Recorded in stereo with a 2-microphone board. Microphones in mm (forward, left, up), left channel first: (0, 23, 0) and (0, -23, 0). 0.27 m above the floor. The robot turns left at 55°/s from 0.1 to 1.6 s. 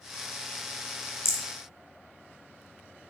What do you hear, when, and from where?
1.2 s a rattle: 55° left (ahead or behind), 1.2 m; by 1.4 s 65° left (ahead or behind), 1.2 m